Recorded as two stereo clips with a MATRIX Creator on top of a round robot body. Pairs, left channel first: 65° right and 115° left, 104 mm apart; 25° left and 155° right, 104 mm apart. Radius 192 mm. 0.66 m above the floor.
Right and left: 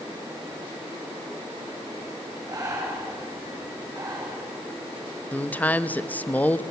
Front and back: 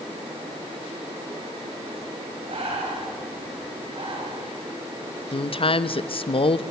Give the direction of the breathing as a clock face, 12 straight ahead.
6 o'clock.